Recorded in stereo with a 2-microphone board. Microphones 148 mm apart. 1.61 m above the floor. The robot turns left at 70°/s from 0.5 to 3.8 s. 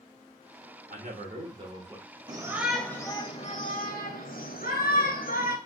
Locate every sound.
0.9 s a man speaking: 90° right, 1.2 m; by 2.1 s 170° right, 1.2 m
2.3 s a shout: 150° right, 1.0 m; by 5.6 s 105° left, 1.0 m